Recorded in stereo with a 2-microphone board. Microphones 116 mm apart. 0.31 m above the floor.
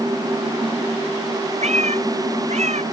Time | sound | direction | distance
1.6 | a cat meowing | 70° right (ahead or behind) | ?